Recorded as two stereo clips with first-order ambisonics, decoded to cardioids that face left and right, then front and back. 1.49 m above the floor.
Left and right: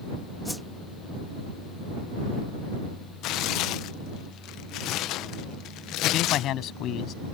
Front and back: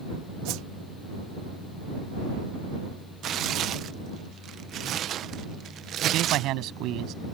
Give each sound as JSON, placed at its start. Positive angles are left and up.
{"t": 0.5, "sound": "a whoosh", "azimuth_deg": 175}
{"t": 3.2, "sound": "tearing paper", "azimuth_deg": 125}
{"t": 6.0, "sound": "a man speaking", "azimuth_deg": 135}